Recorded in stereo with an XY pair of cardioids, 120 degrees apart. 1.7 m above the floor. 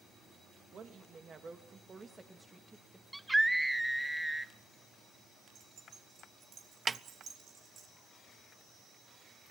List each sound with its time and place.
0.7 s a woman speaking: 45° right, 2.5 m; by 3.0 s 5° right, 2.5 m
3.1 s a scream: 5° right, 0.6 m
5.5 s keys jangling: 55° right, 3.5 m
6.9 s a snare drum: 20° right, 0.5 m